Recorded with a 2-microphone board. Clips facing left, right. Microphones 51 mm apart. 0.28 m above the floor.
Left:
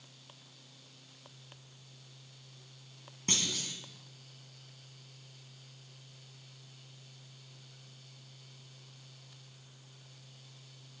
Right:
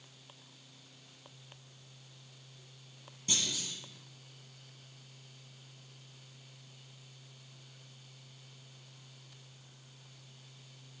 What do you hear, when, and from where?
3.3 s a clunk: 55° left (ahead or behind), 1.5 m